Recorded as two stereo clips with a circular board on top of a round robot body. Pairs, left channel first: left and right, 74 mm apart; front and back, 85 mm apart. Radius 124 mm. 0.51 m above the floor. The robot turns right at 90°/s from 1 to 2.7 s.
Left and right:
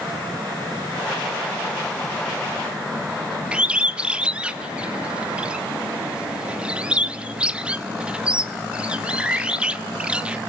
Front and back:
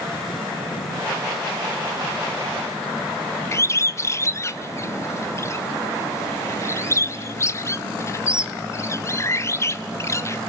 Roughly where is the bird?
Ahead right.